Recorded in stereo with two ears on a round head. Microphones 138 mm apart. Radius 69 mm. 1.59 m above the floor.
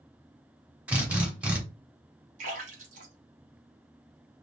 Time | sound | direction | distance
0.9 | a drill | 10° right (ahead or behind) | 1.1 m
2.4 | a splash | 55° right (ahead or behind) | 1.2 m